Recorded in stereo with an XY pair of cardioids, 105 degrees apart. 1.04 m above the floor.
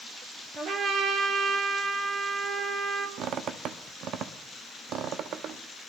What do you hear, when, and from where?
0.6 s a trumpet: 60° right, 4 m
3.2 s a squeak: 70° right, 0.8 m